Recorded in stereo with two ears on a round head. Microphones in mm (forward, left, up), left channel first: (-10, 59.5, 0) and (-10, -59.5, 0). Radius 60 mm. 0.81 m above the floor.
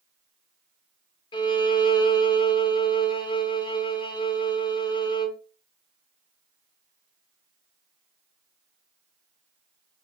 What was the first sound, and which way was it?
A violin, 30° left (ahead or behind).